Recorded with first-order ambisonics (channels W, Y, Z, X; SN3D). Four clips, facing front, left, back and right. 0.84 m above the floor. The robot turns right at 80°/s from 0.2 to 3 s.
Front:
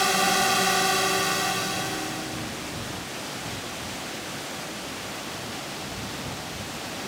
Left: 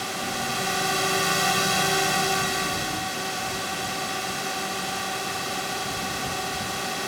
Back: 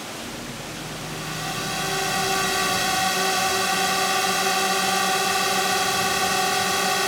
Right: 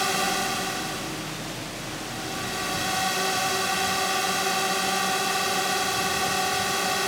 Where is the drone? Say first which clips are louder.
Right 4 dB, front 12 dB; 25° right; by 7.1 s 160° right.